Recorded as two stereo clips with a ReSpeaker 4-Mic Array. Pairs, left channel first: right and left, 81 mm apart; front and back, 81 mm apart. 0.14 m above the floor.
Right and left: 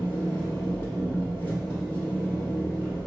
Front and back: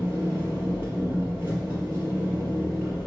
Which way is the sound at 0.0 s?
135° right.